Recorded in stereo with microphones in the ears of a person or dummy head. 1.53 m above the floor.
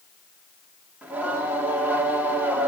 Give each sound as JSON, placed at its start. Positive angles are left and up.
{"t": 1.0, "sound": "singing", "side_deg": -5, "distance_m": 2.5}